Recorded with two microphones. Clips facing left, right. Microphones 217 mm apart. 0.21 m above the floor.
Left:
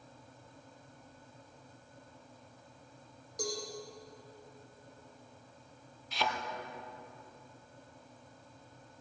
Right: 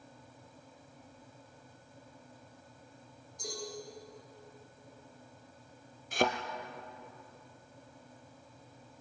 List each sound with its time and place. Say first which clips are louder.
3.4 s a cowbell: left 6 dB; 80° left, 9.5 m
6.1 s a thud: right 7 dB; 50° right (ahead or behind), 1.7 m